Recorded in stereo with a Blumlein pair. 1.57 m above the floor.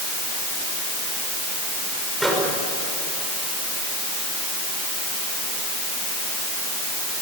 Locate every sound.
2.2 s a microwave: 5° right, 6 m